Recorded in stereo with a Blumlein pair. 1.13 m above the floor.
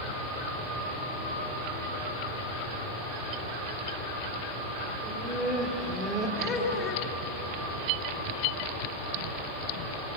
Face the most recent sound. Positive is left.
turn(degrees=20)